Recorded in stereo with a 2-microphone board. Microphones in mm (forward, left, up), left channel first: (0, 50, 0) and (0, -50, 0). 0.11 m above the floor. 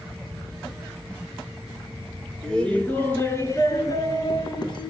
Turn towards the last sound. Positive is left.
turn(degrees=50)  # may be behind; listen again after turning